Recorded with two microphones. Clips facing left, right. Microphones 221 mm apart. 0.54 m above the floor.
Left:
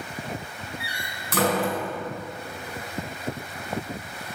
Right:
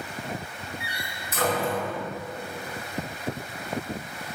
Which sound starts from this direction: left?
A door slam, at 0.8 s.